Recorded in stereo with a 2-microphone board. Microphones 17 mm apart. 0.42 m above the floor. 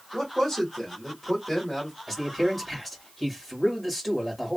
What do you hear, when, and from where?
0.1 s a man speaking: 15° left (ahead or behind), 1.7 m
2.1 s a man speaking: 10° left (ahead or behind), 1.7 m